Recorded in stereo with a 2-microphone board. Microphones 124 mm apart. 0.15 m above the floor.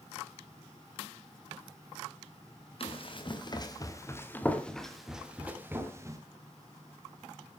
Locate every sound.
2.8 s running footsteps: 50° left (ahead or behind), 3.5 m; by 6.2 s 25° right (ahead or behind), 3.5 m